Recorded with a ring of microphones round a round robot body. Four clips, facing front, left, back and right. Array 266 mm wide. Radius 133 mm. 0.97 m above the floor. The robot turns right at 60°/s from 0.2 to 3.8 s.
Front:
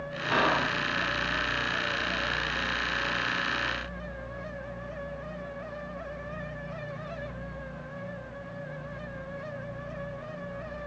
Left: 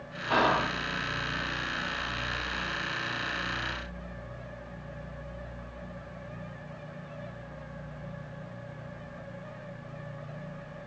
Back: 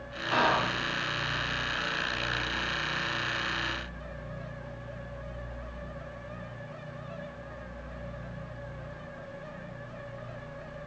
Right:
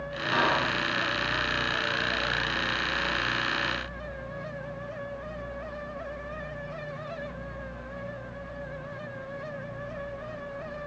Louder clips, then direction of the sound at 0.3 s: Left 1 dB, even; 65° left.